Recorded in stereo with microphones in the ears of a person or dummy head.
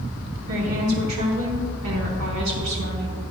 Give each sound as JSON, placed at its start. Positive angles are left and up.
{"t": 0.5, "sound": "a woman speaking", "side_deg": -80, "distance_m": 1.1}